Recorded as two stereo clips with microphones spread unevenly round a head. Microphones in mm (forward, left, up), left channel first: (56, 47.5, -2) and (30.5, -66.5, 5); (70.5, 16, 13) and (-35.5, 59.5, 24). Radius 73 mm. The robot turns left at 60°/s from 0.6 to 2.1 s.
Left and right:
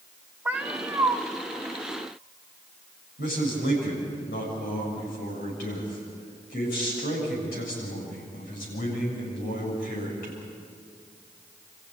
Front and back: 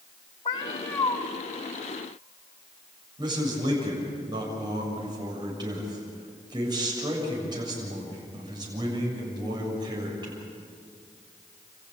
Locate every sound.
0.5 s a cat meowing: 55° right, 1.4 m; by 1.2 s 90° right, 1.4 m
3.2 s a man speaking: 105° left, 7.5 m